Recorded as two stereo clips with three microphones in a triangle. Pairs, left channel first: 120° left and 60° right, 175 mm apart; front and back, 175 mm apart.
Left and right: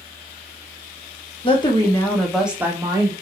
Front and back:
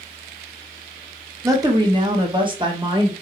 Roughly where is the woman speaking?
Behind left.